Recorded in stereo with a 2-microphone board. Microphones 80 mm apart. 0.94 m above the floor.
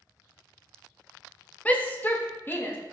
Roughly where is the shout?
Centre.